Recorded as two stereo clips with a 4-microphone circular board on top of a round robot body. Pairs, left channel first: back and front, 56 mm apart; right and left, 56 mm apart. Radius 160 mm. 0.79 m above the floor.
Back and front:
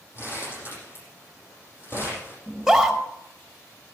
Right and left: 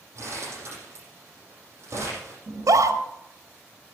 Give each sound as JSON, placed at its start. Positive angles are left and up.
{"t": 0.1, "sound": "crumpling", "azimuth_deg": 135, "distance_m": 7.5}
{"t": 2.5, "sound": "a scream", "azimuth_deg": 90, "distance_m": 1.9}